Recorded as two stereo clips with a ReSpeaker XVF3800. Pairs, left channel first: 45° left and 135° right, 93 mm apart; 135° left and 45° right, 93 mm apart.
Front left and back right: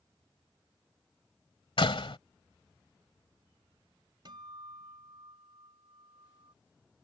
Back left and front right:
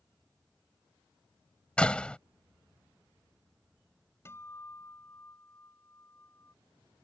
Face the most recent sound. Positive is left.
turn(degrees=-165)